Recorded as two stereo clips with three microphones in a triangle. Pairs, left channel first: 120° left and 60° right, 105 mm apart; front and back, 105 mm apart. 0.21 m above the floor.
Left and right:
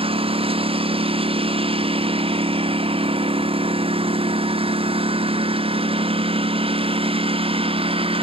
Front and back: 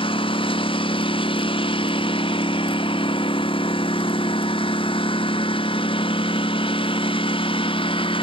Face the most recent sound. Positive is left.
turn(degrees=-35)